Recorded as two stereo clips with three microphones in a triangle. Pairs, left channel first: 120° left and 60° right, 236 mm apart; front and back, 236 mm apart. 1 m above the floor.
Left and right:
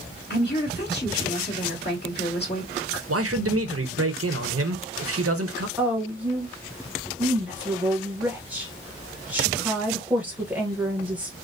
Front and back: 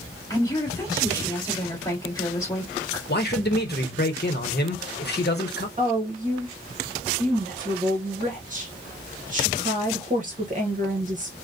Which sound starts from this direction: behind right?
A woman speaking, at 5.8 s.